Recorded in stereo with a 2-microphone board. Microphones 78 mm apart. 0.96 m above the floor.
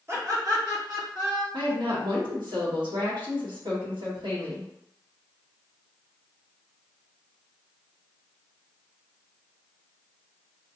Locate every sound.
0.1 s laughter: 35° right (ahead or behind), 1.2 m; by 1.4 s 65° right (ahead or behind), 2 m
1.5 s a woman speaking: 80° right, 1.4 m